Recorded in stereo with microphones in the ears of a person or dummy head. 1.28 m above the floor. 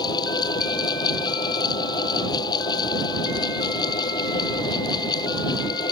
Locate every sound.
0.0 s a fan: 25° left (ahead or behind)